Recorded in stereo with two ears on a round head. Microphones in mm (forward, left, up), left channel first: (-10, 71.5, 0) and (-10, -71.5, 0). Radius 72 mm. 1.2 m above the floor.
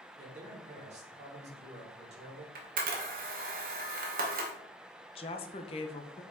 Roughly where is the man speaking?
Right.